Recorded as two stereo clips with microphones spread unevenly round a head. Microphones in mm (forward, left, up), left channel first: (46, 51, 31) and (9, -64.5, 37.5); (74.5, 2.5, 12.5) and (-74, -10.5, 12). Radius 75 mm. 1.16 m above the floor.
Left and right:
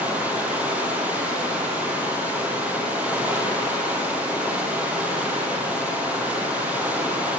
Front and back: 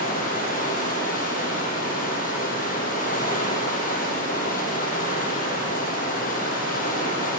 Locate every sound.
0.0 s running water: 30° right, 4.5 m